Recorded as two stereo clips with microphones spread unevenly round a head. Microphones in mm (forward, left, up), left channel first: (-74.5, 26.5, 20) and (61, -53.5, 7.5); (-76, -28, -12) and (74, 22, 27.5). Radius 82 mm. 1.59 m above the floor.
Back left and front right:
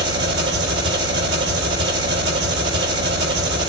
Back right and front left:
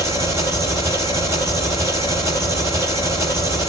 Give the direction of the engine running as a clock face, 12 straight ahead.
2 o'clock.